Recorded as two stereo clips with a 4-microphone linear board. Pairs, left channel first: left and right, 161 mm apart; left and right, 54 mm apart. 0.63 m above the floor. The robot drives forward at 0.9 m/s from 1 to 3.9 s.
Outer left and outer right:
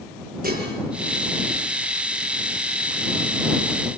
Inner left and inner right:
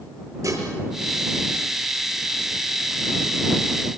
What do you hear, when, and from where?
0.4 s dishes clattering: 55° right (ahead or behind), 7.5 m